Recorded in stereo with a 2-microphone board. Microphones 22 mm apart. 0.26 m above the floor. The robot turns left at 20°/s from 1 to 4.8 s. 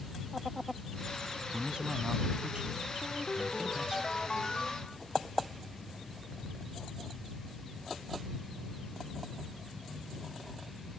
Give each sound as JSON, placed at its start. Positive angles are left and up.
{"t": 1.5, "sound": "a man speaking", "azimuth_deg": -75}
{"t": 3.0, "sound": "a ringtone", "azimuth_deg": 45}